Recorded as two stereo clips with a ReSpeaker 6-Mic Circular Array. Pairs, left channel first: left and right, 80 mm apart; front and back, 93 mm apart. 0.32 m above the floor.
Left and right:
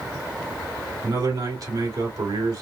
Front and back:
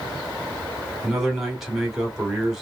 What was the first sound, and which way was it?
A man speaking, 95° right.